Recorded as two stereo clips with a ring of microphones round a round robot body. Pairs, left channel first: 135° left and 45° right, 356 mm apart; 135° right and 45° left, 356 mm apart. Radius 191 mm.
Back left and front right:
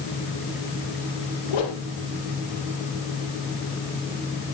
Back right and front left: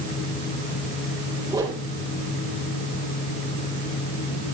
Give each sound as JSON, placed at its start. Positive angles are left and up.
{"t": 1.5, "sound": "a whoosh", "azimuth_deg": 125, "distance_m": 3.5}